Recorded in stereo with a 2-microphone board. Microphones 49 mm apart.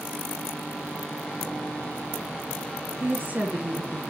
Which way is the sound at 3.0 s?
40° right (ahead or behind).